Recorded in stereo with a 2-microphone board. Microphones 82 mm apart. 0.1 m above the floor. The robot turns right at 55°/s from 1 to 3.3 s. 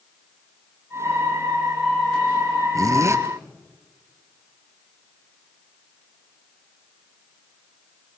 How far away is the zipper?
About 1.9 m.